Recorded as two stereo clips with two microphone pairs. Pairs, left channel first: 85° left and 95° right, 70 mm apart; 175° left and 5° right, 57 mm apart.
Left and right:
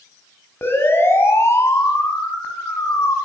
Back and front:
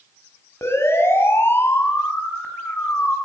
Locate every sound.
0.6 s a siren: 135° left, 6.5 m; by 3.2 s 120° left, 6.5 m